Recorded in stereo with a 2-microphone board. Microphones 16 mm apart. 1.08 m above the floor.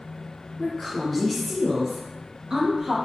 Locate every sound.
0.6 s a woman speaking: 30° left (ahead or behind), 0.9 m; by 3.0 s 55° right (ahead or behind), 0.9 m